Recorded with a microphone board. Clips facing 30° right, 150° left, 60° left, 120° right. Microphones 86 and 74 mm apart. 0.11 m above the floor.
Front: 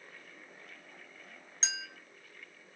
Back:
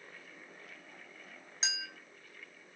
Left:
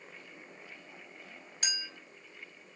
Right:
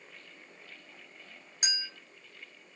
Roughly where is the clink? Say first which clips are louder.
Even, right 2 dB; behind right.